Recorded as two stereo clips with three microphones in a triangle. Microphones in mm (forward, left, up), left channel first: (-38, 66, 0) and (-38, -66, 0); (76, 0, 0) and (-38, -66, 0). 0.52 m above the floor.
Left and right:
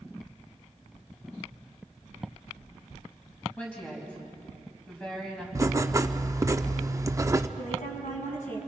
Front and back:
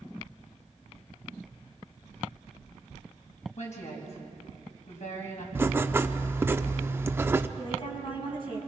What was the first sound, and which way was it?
A woman speaking, 10° left.